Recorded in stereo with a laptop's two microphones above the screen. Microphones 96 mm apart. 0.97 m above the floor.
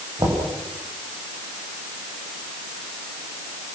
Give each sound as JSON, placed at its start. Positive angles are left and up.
{"t": 0.2, "sound": "knocking", "side_deg": -50, "distance_m": 4.5}